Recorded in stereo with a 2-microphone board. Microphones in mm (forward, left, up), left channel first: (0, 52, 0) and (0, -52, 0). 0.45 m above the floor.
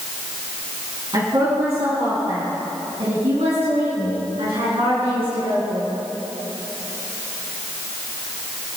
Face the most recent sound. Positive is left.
turn(degrees=-60)  # may be behind; listen again after turning